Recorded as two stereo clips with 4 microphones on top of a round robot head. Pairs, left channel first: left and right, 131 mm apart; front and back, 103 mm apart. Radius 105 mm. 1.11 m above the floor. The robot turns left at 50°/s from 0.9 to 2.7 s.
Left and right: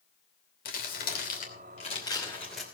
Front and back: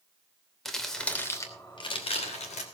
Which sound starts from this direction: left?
Crumpling, at 0.7 s.